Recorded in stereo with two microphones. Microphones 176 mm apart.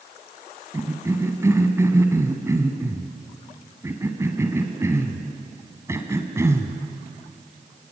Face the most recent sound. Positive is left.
turn(degrees=-15)  # may be behind; listen again after turning